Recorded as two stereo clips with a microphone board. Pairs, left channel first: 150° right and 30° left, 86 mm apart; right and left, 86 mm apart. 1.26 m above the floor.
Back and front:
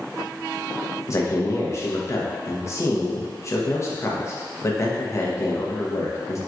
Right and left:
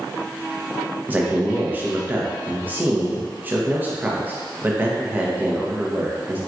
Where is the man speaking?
155° left, 0.8 m.